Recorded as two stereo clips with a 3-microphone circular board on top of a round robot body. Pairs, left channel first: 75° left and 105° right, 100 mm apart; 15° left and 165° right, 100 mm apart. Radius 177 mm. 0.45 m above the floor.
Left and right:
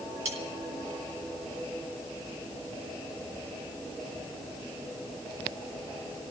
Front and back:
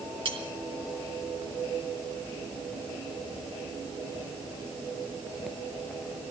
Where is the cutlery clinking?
125° right, 5 m.